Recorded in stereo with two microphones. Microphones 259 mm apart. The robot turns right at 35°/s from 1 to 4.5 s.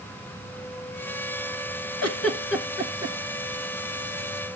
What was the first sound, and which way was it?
A giggle, 70° left (ahead or behind).